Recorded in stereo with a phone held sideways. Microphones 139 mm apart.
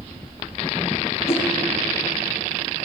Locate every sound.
1.3 s a whoosh: 45° left (ahead or behind), 1.0 m